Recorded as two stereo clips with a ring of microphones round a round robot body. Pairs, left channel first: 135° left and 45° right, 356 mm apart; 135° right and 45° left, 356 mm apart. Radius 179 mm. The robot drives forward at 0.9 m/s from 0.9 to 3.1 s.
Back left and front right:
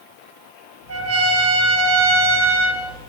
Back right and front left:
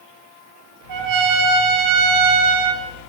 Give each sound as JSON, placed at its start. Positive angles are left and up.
{"t": 0.9, "sound": "a trumpet", "azimuth_deg": 10, "distance_m": 5.5}